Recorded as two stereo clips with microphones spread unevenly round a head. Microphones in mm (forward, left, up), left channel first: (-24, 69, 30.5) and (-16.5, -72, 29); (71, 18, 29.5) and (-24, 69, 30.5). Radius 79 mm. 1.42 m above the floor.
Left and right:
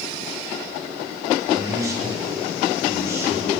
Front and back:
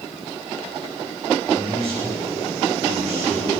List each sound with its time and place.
1.4 s a man speaking: 155° right, 9 m; by 3.6 s 160° right, 10 m